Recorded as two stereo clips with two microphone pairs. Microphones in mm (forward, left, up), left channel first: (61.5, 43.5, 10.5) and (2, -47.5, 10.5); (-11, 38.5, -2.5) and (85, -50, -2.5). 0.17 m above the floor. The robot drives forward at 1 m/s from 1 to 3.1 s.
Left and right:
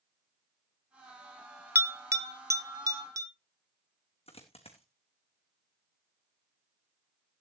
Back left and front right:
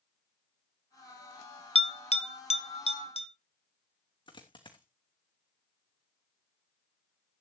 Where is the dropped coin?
85° left, 3 m.